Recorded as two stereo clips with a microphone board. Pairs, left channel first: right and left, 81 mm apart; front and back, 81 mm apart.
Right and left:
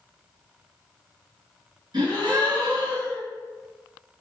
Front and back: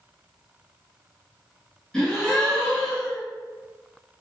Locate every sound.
1.9 s a gasp: 80° left, 1.7 m